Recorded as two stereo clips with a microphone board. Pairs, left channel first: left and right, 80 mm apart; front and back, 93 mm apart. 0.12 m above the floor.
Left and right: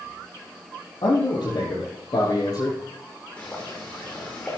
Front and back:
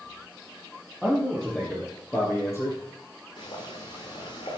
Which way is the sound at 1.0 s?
90° left.